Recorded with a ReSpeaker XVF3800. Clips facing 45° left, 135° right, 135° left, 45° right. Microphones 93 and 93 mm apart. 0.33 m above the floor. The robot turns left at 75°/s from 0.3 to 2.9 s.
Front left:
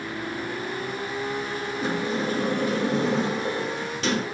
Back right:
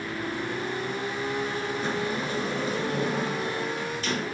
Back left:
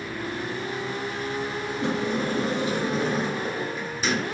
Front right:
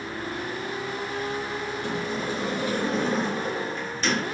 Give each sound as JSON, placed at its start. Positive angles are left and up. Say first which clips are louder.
{"t": 1.8, "sound": "a sliding door", "louder": "front left 6 dB, back left 6 dB", "azimuth_deg": 130, "distance_m": 2.5}